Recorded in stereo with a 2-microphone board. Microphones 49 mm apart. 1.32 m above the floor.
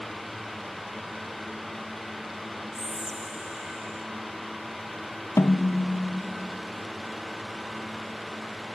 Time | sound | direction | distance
2.7 | whispering | 75° right (ahead or behind) | 1.1 m
5.4 | a snare drum | 75° left (ahead or behind) | 0.6 m